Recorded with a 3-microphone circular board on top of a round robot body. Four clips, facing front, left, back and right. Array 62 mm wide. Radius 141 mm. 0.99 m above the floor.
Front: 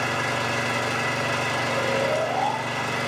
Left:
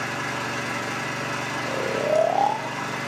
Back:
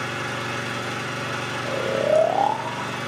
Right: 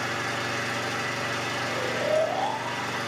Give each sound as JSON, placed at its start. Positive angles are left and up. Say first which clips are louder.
{"t": 0.0, "sound": "an engine running", "louder": "left 1 dB, front 3 dB", "azimuth_deg": 0, "distance_m": 1.5}
{"t": 1.6, "sound": "snoring", "louder": "left 4 dB, back 4 dB", "azimuth_deg": 140, "distance_m": 0.7}